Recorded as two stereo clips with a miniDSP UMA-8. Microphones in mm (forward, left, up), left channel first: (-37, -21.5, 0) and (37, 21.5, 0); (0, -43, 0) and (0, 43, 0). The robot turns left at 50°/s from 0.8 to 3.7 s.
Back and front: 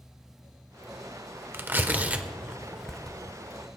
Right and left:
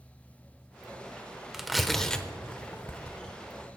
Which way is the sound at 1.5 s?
10° left.